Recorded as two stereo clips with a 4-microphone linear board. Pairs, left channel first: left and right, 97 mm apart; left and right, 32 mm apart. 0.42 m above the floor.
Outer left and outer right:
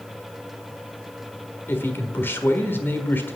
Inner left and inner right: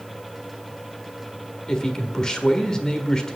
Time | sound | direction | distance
1.7 | a man speaking | 25° left (ahead or behind) | 1.4 m